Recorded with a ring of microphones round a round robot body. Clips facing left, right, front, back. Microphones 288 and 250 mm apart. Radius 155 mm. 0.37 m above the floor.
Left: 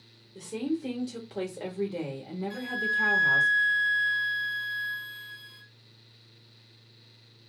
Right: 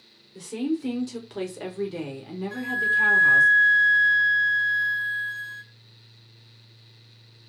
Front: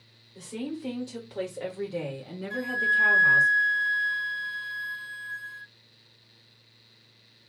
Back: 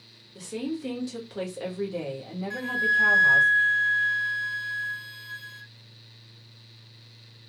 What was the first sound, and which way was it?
A woman speaking, 160° right.